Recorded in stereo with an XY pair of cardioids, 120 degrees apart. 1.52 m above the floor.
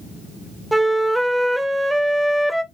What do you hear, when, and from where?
0.7 s a flute: 5° right, 0.5 m